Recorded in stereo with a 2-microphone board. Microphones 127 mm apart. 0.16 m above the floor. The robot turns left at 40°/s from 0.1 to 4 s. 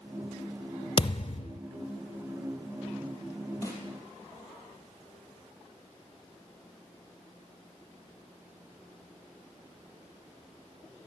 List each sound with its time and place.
1.0 s a thud: 45° left (ahead or behind), 0.6 m; by 1.6 s 60° left (ahead or behind), 0.6 m
3.6 s a snare drum: 25° left (ahead or behind), 3.5 m; by 3.8 s 30° left (ahead or behind), 3.5 m